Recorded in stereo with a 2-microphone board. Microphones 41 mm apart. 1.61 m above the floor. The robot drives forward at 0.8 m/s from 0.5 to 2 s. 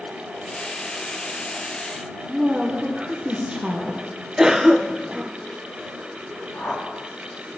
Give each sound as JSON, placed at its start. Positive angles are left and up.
{"t": 2.3, "sound": "a woman speaking", "side_deg": -30, "distance_m": 1.2}
{"t": 4.4, "sound": "a cough", "side_deg": -15, "distance_m": 0.6}
{"t": 6.5, "sound": "a whoosh", "side_deg": 50, "distance_m": 1.7}